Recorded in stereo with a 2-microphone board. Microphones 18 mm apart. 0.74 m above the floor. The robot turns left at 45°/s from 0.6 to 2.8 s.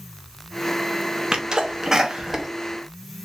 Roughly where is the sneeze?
Right.